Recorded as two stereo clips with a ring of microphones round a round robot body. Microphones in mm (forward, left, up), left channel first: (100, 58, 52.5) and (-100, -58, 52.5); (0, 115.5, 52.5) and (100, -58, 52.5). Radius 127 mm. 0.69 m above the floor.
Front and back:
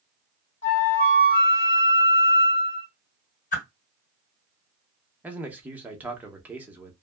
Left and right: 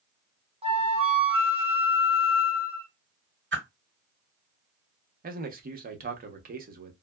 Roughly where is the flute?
Ahead.